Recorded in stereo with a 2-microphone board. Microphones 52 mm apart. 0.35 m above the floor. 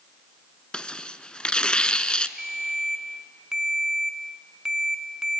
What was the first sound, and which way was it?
Tearing paper, 20° left (ahead or behind).